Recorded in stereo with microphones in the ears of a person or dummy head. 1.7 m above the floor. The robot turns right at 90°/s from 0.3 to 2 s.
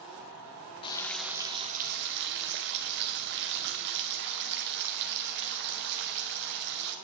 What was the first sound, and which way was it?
Frying, 145° left.